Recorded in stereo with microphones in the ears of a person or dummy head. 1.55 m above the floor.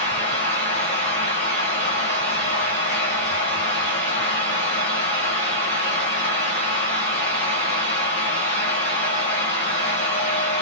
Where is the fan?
35° left (ahead or behind), 1.1 m.